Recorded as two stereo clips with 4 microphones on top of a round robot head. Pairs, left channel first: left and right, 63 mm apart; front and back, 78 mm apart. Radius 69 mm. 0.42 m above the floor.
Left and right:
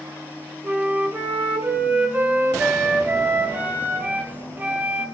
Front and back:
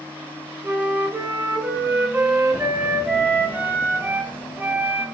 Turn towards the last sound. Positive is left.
turn(degrees=-130)